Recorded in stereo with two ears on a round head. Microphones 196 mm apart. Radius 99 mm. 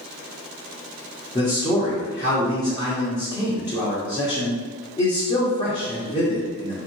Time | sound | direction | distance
1.4 | a man speaking | 20° left (ahead or behind) | 0.9 m